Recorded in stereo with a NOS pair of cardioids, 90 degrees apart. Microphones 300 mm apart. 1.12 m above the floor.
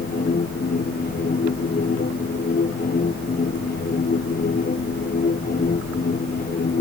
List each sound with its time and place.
0.0 s a machine running: 30° left